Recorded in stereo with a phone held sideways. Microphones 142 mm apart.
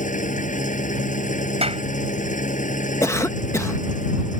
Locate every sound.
0.0 s an engine running: 60° left (ahead or behind)
1.6 s a clap: 45° right (ahead or behind)
3.0 s a cough: 20° left (ahead or behind)